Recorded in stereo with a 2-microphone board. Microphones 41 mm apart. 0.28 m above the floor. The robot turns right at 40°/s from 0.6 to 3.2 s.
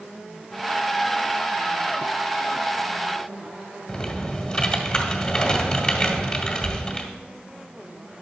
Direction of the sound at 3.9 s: 15° left (ahead or behind).